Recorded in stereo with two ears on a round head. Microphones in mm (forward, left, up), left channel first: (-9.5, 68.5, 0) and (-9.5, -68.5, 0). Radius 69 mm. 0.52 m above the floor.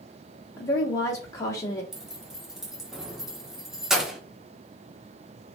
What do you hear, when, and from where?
0.6 s a woman speaking: 20° left (ahead or behind), 0.9 m
1.9 s keys jangling: 5° right (ahead or behind), 0.6 m